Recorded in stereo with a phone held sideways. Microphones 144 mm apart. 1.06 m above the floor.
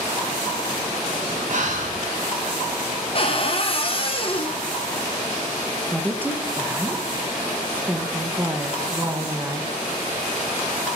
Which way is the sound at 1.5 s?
60° right (ahead or behind).